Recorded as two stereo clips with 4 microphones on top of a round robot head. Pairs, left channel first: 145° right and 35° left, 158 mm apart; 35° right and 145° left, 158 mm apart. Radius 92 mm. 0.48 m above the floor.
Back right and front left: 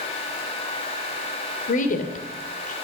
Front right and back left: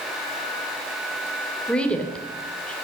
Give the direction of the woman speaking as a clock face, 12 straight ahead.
4 o'clock.